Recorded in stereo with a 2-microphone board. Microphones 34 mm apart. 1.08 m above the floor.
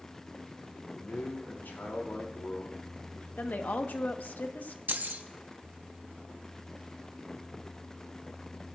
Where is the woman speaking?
60° left (ahead or behind), 1.2 m.